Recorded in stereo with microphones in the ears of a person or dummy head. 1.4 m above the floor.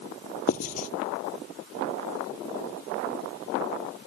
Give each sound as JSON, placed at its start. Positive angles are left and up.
{"t": 0.5, "sound": "writing", "side_deg": 45}